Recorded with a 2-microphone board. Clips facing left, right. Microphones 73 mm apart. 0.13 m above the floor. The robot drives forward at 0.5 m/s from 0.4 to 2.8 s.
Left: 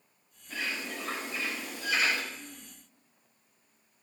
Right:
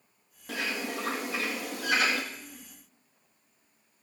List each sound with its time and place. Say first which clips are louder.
0.5 s a bird: right 3 dB; 80° right, 1.9 m; by 2.2 s 60° right (ahead or behind), 2 m
2.3 s throat clearing: even; 25° right (ahead or behind), 7.5 m